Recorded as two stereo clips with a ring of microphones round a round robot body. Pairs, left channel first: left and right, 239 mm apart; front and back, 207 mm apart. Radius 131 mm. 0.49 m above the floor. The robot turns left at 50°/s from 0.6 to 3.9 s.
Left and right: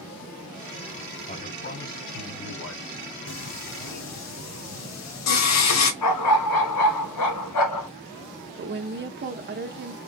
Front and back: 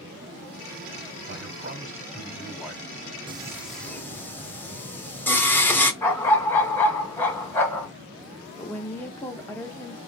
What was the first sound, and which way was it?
A man speaking, 160° left.